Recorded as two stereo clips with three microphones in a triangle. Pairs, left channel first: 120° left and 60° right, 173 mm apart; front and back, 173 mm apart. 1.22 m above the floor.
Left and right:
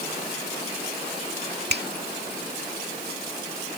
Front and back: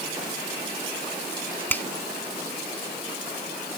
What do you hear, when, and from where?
1.7 s a finger snap: 80° right